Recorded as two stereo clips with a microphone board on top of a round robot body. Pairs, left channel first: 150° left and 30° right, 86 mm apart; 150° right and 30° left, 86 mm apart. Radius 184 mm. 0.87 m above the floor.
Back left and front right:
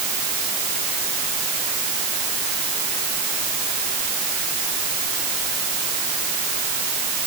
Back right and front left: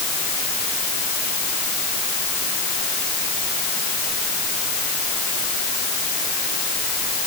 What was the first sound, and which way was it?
Only background noise.